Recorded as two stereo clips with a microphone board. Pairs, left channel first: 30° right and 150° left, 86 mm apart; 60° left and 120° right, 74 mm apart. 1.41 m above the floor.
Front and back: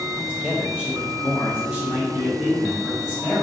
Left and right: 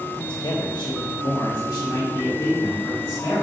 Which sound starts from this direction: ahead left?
A man speaking, at 0.1 s.